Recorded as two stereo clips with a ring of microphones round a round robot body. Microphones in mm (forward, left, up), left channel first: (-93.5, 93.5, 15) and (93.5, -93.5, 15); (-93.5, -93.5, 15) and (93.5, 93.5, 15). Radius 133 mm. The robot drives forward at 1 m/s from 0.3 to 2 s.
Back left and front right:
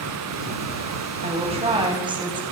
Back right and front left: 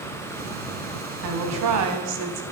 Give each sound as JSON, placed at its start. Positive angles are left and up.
{"t": 1.2, "sound": "a woman speaking", "azimuth_deg": 20, "distance_m": 3.5}